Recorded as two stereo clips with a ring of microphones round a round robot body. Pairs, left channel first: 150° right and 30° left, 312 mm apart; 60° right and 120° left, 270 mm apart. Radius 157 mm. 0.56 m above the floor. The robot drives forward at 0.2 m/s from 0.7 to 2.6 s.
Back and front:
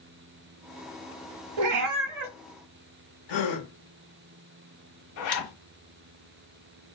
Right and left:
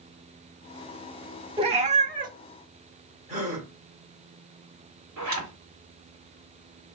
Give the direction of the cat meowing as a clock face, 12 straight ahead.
10 o'clock.